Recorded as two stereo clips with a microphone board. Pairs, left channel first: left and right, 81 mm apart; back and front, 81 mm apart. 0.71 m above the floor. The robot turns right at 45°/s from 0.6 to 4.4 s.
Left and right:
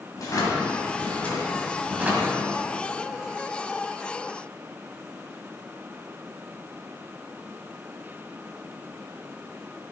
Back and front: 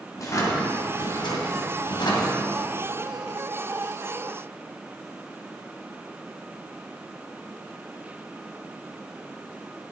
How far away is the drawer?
About 2 m.